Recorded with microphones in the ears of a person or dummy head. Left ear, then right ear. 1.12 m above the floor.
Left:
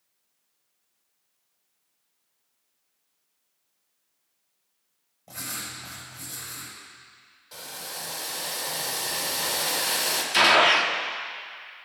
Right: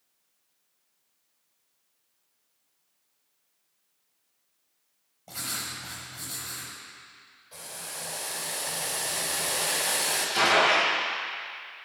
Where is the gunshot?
60° left (ahead or behind), 1.4 m.